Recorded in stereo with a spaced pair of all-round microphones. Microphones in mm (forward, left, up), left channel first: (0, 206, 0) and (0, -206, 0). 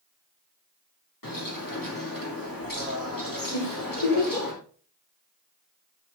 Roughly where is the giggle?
Left.